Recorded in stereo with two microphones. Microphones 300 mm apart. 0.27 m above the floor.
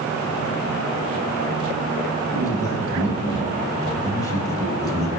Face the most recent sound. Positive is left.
turn(degrees=10)  # may be behind; listen again after turning